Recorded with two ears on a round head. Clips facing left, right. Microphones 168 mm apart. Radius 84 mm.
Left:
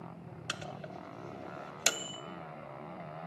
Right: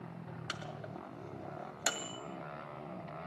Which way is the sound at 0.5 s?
35° left (ahead or behind).